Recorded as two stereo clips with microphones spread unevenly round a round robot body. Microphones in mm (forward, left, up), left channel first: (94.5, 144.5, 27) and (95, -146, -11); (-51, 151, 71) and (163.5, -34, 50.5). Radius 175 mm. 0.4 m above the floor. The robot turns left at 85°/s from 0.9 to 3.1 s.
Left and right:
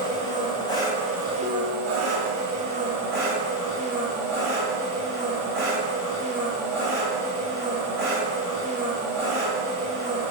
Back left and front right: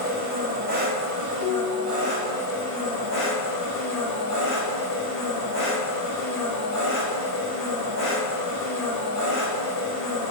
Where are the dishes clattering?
145° right, 1.0 m; by 2.4 s 135° left, 1.0 m.